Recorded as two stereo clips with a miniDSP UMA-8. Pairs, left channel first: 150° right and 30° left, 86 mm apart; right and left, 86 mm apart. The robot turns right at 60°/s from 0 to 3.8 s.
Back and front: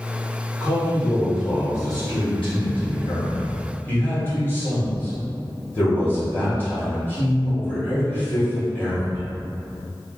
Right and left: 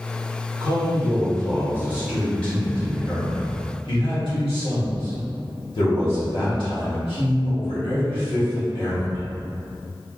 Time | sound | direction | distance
0.6 | a man speaking | 85° left | 1.7 m